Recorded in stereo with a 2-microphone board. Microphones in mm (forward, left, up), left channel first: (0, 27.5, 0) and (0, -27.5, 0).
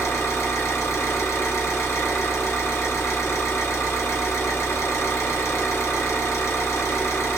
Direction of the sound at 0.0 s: 55° left (ahead or behind).